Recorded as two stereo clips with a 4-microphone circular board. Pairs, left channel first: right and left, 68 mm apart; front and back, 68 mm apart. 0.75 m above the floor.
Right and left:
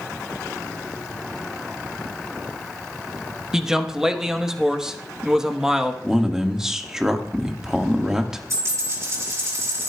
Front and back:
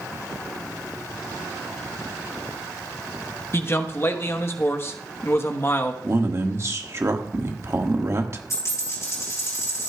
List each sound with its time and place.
3.5 s a man speaking: 15° left, 1.0 m
6.0 s a man speaking: 165° left, 1.3 m
8.5 s a dropped coin: 45° left, 5.5 m